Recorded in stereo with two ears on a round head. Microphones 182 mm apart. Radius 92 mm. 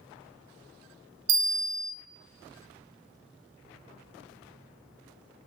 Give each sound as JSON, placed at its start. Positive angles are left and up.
{"t": 1.3, "sound": "a bell", "side_deg": -65, "distance_m": 0.7}